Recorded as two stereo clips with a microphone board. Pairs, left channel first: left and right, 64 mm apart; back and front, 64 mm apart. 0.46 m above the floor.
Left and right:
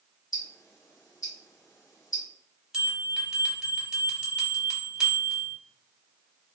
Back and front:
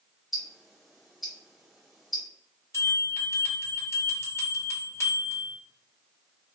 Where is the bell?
165° right, 1.5 m.